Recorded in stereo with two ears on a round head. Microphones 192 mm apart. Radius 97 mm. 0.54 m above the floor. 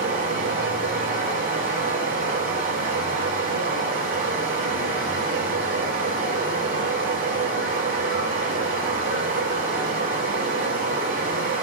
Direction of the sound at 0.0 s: 40° right (ahead or behind).